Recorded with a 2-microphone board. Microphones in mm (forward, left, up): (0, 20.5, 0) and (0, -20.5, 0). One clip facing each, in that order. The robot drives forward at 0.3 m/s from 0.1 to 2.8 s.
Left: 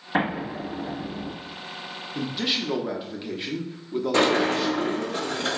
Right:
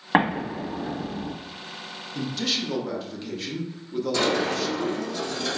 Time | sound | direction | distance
0.1 | an explosion | 65° right (ahead or behind) | 1.5 m
2.1 | a man speaking | 20° left (ahead or behind) | 0.5 m
4.1 | a sliding door | 40° left (ahead or behind) | 0.6 m